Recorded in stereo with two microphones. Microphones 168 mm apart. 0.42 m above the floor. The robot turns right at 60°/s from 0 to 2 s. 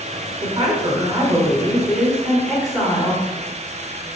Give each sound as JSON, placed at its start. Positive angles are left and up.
{"t": 0.4, "sound": "a woman speaking", "azimuth_deg": -95, "distance_m": 1.2}